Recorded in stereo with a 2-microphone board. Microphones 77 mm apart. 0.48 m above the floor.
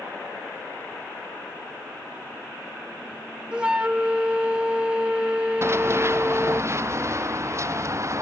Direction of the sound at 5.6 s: 35° right (ahead or behind).